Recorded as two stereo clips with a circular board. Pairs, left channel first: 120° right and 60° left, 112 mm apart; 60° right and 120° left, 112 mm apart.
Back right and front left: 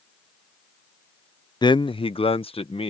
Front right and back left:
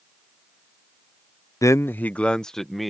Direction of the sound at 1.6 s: 105° right.